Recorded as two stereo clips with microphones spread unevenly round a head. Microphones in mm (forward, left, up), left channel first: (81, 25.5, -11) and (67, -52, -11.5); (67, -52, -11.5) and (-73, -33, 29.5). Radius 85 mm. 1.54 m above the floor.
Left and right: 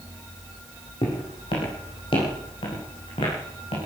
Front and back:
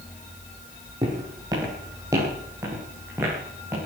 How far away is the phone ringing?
I don't hear a phone ringing.